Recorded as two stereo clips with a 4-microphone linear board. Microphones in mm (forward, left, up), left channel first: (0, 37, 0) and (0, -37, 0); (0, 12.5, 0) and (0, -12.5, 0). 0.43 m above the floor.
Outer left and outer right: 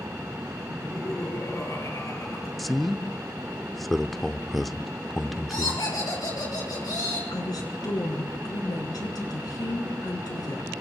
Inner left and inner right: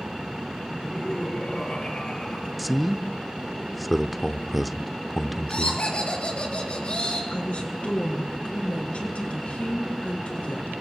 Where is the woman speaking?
65° left (ahead or behind), 5.5 m.